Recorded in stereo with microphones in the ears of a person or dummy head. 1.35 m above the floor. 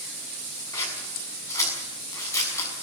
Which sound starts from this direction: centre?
Scissors, at 0.7 s.